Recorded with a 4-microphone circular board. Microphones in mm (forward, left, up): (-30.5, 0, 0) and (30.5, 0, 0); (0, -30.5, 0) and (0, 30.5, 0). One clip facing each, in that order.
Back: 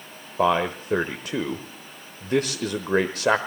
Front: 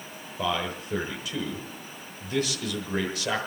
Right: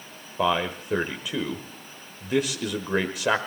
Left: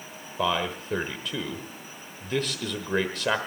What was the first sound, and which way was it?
A man speaking, 165° right.